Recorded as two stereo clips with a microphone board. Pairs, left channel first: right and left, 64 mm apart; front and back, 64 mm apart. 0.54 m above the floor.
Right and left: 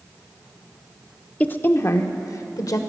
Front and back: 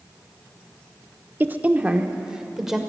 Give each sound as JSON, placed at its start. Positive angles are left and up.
{"t": 1.4, "sound": "a woman speaking", "azimuth_deg": -140, "distance_m": 0.7}